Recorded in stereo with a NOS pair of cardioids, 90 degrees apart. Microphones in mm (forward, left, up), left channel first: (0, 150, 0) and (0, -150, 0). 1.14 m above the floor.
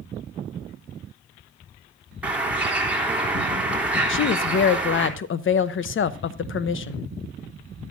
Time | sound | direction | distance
2.2 | a bird | 5° right | 3.5 m
4.1 | a woman speaking | 45° left | 0.9 m